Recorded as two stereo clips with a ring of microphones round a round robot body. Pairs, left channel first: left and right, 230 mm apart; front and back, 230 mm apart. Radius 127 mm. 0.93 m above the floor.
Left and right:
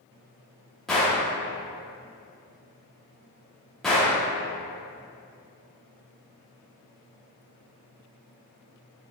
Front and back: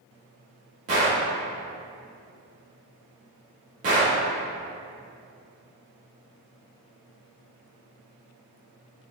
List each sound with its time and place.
0.9 s a gunshot: straight behind, 0.7 m